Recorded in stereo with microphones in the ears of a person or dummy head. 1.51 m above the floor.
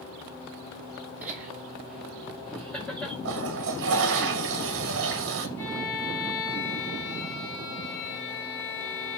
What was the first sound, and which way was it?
Laughter, 10° right (ahead or behind).